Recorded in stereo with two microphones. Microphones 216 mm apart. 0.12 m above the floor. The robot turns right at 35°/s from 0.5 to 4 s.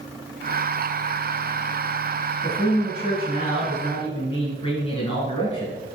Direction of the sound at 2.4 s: 75° left.